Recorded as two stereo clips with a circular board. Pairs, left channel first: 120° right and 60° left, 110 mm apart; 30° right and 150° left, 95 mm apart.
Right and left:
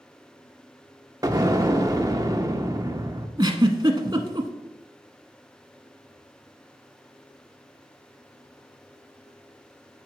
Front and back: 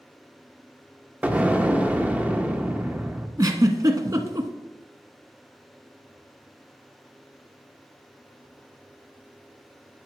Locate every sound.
1.2 s an explosion: 85° left, 0.8 m
3.4 s a giggle: 105° left, 0.9 m